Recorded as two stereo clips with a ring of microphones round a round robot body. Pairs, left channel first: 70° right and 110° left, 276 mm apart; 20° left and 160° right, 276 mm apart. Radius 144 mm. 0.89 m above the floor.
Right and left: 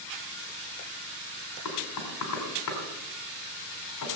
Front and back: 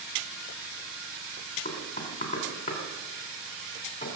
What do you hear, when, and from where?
1.6 s knocking: 45° right, 3 m